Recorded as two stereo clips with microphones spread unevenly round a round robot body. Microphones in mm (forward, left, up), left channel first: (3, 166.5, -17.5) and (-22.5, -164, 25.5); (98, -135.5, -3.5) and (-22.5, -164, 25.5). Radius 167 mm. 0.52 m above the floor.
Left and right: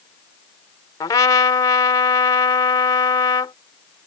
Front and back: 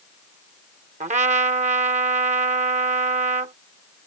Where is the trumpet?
160° left.